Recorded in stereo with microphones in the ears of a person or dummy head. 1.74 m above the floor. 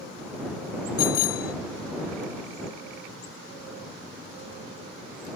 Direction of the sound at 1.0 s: 50° left (ahead or behind).